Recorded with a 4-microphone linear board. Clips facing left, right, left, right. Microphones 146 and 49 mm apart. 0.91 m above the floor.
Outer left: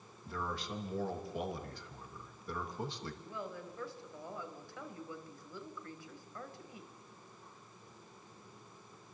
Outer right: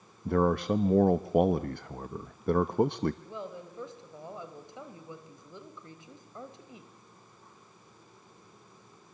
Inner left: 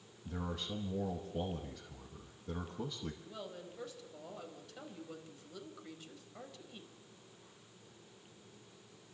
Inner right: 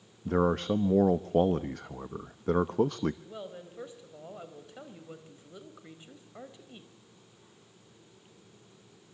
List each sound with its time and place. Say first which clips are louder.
0.2 s a man speaking: outer right 15 dB, inner right 15 dB; 60° right (ahead or behind), 0.8 m
3.2 s a woman speaking: outer right 3 dB, inner right 4 dB; 20° right (ahead or behind), 4 m